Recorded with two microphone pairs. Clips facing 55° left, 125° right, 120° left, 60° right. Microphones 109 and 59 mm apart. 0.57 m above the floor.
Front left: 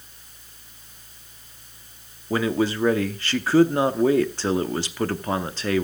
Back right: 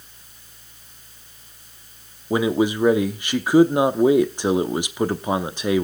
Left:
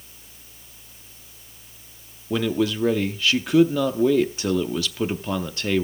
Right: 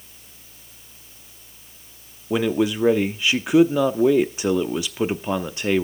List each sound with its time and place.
2.3 s a man speaking: 90° right, 0.6 m